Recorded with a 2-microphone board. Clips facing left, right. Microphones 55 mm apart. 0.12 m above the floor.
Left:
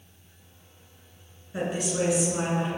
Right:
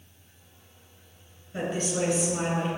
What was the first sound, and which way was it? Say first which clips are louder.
A woman speaking: left 1 dB; 10° left (ahead or behind).